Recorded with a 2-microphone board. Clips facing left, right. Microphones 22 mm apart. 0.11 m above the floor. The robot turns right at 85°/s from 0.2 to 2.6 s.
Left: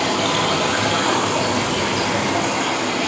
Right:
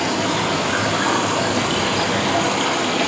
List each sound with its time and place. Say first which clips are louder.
0.0 s running water: left 1 dB; 80° left, 2 m; by 3.1 s 75° right, 2 m